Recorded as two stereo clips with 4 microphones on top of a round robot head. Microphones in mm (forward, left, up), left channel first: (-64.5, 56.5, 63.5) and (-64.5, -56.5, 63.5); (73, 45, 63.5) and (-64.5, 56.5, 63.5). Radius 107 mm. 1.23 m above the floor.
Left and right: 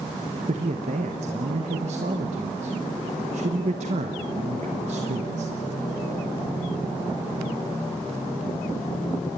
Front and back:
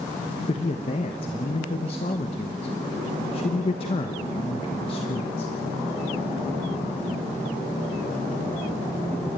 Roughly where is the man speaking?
Ahead right.